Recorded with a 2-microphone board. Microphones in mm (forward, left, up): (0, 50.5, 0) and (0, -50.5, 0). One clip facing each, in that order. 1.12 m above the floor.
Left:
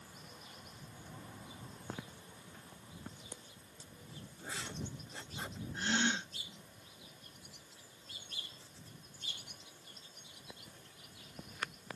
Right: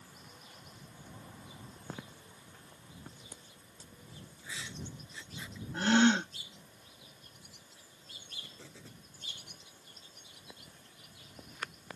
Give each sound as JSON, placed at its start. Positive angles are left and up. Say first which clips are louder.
{"t": 4.4, "sound": "writing", "louder": "left 2 dB", "side_deg": 50}
{"t": 5.7, "sound": "a gasp", "louder": "right 10 dB", "side_deg": -80}
{"t": 8.4, "sound": "an explosion", "louder": "right 4 dB", "side_deg": -80}